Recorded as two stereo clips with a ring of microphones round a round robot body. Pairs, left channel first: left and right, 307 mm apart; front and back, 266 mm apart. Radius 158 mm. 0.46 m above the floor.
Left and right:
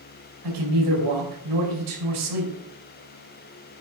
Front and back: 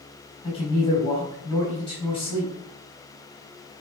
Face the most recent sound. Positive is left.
turn(degrees=-75)